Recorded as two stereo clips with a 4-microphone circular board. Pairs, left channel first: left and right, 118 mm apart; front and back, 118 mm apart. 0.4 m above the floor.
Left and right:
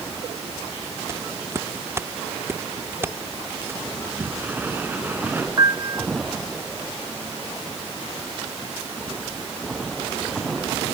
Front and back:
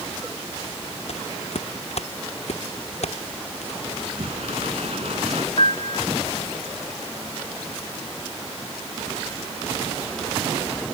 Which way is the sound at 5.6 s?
35° right.